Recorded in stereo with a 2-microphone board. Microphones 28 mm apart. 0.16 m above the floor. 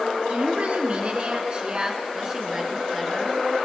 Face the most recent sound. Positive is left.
turn(degrees=-5)  # may be behind; listen again after turning